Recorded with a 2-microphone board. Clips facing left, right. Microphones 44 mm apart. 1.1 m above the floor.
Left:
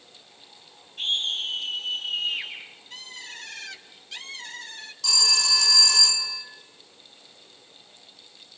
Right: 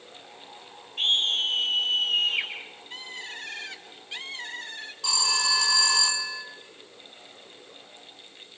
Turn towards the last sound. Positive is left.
turn(degrees=-20)  # may be behind; listen again after turning